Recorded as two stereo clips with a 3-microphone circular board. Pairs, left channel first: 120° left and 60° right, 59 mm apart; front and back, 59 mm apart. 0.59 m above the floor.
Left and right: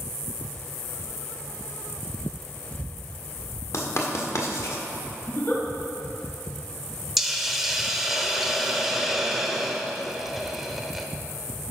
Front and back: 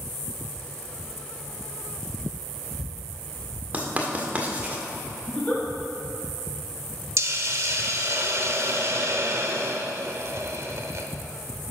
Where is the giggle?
70° left, 4 m.